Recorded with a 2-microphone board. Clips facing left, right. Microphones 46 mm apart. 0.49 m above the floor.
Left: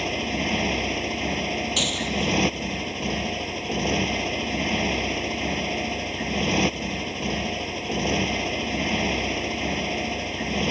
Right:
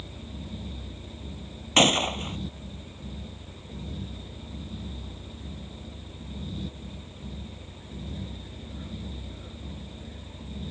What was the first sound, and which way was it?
A motorcycle, 85° left.